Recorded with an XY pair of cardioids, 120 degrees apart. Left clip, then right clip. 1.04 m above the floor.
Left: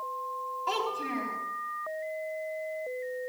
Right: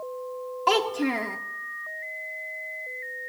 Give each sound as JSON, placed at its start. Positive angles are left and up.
{"t": 0.7, "sound": "a child speaking", "azimuth_deg": -70, "distance_m": 1.2}